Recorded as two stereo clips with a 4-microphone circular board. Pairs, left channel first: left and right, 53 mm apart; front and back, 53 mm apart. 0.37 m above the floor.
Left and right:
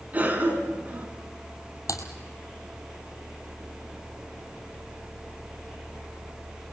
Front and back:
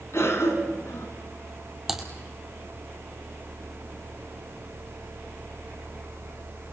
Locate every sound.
0.1 s a cough: 30° right, 4 m
1.9 s typing on a keyboard: 95° left, 2 m